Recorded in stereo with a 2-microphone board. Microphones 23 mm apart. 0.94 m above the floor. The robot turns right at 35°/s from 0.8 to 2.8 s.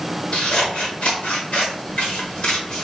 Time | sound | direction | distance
0.3 | scissors | 50° left (ahead or behind) | 1.0 m